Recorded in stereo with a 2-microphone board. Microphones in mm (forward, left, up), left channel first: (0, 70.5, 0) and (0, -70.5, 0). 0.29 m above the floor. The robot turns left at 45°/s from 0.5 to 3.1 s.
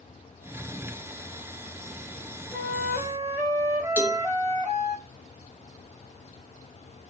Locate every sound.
2.5 s a flute: 5° left (ahead or behind), 1.5 m; by 5.0 s 10° right (ahead or behind), 1.5 m
4.0 s a cowbell: 20° right (ahead or behind), 1.3 m